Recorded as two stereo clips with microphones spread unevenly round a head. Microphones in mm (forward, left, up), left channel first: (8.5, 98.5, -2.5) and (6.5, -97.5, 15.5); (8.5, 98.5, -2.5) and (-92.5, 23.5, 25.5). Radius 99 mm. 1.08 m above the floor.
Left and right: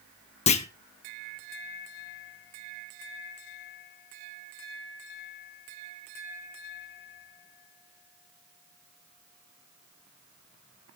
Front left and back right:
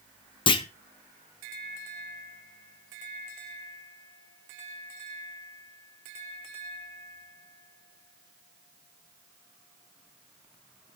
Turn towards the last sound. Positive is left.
turn(degrees=50)